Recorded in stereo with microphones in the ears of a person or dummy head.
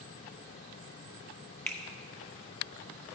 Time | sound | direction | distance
1.7 | a finger snap | 10° left (ahead or behind) | 0.8 m